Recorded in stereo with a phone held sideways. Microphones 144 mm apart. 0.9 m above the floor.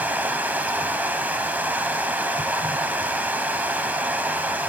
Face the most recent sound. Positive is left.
turn(degrees=-10)  # may be behind; listen again after turning